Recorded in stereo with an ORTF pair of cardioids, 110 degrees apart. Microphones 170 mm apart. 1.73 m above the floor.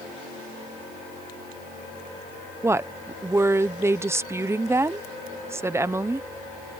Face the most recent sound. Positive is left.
turn(degrees=-15)